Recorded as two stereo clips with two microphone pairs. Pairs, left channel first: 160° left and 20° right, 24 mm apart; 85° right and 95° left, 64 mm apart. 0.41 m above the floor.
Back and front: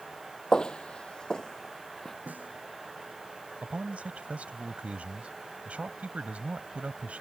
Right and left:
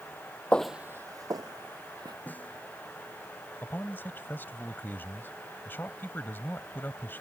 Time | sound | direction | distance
0.5 | footsteps | 150° right | ?
2.3 | a snare drum | 20° right | ?
3.6 | a man speaking | 30° right | ?